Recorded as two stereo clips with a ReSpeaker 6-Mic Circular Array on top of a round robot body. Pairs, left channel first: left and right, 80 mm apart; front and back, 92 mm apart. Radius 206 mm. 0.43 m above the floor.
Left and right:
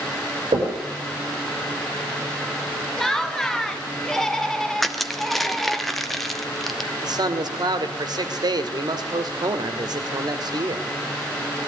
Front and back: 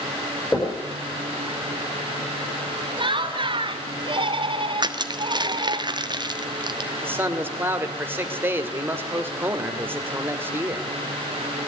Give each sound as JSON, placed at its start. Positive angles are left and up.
{"t": 0.5, "sound": "knocking", "azimuth_deg": -70, "distance_m": 7.5}
{"t": 3.0, "sound": "laughter", "azimuth_deg": 175, "distance_m": 2.5}
{"t": 4.8, "sound": "crushing", "azimuth_deg": 175, "distance_m": 1.8}
{"t": 7.0, "sound": "a man speaking", "azimuth_deg": -115, "distance_m": 2.5}